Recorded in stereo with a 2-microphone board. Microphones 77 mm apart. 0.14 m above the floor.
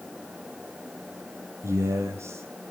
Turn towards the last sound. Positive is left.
turn(degrees=-40)  # may be behind; listen again after turning